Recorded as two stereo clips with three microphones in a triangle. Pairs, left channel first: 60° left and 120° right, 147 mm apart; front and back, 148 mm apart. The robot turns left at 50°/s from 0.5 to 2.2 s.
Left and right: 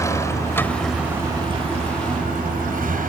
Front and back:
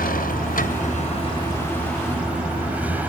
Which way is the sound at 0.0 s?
10° right.